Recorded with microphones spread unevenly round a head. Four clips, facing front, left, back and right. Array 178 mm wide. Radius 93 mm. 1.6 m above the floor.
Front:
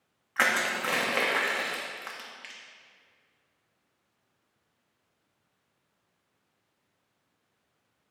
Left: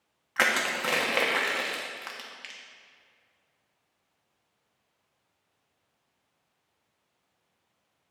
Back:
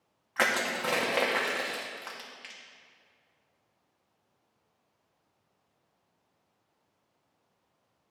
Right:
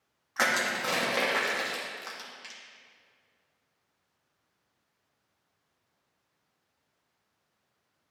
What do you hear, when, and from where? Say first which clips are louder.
0.4 s crushing: left 1 dB, front 1 dB; 125° left, 1.0 m